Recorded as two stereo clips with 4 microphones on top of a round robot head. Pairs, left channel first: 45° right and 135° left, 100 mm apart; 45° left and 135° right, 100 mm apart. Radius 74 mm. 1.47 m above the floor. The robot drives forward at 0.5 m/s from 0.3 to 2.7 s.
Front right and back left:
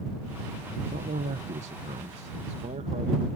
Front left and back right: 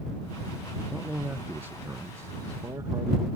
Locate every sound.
0.9 s a man speaking: 140° left; by 3.3 s 160° left